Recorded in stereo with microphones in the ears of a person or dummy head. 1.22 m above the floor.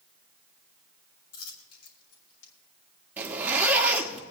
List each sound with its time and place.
1.3 s a dropped coin: 75° left (ahead or behind), 2.5 m
3.2 s a zipper: 5° right (ahead or behind), 1.2 m